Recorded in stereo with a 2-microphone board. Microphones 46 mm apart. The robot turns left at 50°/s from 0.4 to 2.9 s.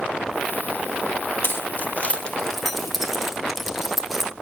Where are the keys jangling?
60° left (ahead or behind), 1.6 m; by 4.3 s 5° right (ahead or behind), 1.6 m.